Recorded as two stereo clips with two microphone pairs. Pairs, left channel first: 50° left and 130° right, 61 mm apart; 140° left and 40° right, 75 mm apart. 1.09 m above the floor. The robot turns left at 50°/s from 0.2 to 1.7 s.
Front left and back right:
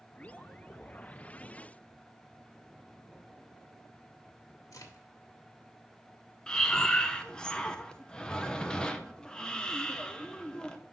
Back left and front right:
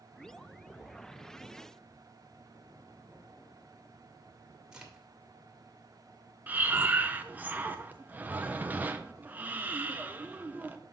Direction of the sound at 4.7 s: 45° left.